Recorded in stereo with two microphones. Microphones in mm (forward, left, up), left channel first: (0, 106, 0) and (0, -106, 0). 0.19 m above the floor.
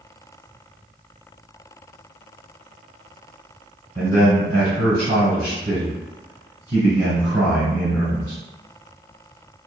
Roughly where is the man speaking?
Right.